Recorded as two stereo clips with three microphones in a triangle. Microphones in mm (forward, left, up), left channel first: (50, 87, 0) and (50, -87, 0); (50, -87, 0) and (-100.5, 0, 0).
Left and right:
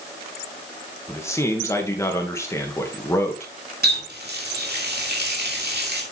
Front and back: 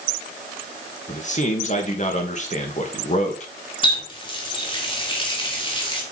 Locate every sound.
1.1 s a man speaking: 15° left, 2.5 m
3.8 s a running tap: 90° right, 2.5 m